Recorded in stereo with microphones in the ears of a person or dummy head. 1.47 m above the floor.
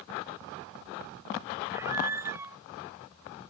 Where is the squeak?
25° right (ahead or behind).